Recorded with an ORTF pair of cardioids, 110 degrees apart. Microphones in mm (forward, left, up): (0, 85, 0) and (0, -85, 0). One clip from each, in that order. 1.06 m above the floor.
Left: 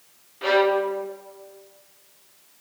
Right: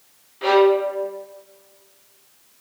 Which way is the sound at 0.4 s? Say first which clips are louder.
Right 4 dB; 5° right.